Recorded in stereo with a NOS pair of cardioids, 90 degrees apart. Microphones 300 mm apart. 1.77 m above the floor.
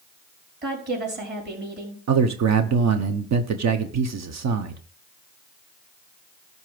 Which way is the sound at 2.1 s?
60° right.